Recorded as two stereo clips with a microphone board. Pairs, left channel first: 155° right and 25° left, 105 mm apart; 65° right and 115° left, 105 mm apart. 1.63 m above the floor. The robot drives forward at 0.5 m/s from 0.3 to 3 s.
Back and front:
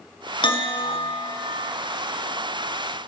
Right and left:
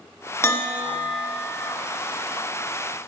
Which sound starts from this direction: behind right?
A bell, at 0.4 s.